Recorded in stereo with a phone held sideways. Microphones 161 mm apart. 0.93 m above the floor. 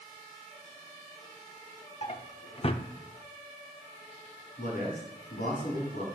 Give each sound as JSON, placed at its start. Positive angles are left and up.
{"t": 2.0, "sound": "a drawer", "side_deg": 40, "distance_m": 0.7}
{"t": 4.6, "sound": "a man speaking", "side_deg": 75, "distance_m": 6.5}